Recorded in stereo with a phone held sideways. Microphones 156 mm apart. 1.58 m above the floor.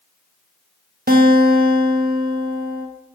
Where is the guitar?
70° right (ahead or behind), 1.0 m.